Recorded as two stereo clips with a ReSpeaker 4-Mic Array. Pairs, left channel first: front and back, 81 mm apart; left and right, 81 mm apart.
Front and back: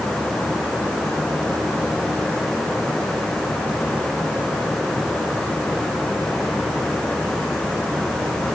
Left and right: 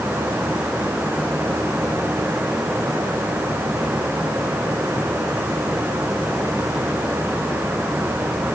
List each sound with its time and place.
Only background noise.